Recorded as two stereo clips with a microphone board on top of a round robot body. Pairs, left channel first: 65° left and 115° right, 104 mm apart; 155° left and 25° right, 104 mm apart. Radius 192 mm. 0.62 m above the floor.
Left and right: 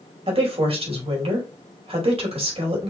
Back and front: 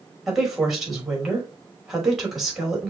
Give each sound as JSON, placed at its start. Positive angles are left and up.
{"t": 0.3, "sound": "a woman speaking", "azimuth_deg": -110, "distance_m": 3.0}